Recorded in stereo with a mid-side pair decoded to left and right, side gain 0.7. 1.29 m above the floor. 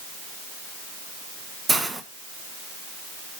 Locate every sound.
1.7 s a hiss: 15° right, 1.3 m